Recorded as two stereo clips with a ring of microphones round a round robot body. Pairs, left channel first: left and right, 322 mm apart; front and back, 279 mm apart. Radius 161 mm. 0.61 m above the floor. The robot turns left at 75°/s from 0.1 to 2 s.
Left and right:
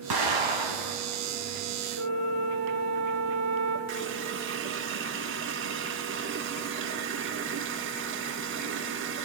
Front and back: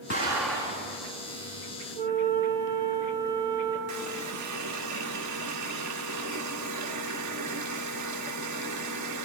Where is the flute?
120° right, 3 m; by 3.8 s 125° right, 3 m.